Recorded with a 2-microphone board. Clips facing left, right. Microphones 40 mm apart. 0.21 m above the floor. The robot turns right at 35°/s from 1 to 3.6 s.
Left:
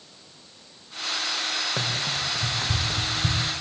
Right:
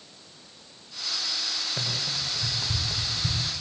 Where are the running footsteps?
80° left, 4 m; by 3.4 s 60° left (ahead or behind), 3 m.